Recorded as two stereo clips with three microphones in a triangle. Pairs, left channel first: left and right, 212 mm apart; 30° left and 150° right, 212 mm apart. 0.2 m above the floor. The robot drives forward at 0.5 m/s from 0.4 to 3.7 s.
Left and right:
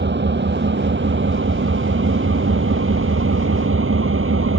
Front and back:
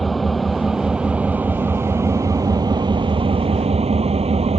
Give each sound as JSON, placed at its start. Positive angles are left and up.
{"t": 0.0, "sound": "an engine running", "azimuth_deg": -60}